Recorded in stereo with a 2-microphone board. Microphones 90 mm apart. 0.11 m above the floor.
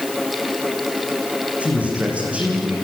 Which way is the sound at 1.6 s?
15° right (ahead or behind).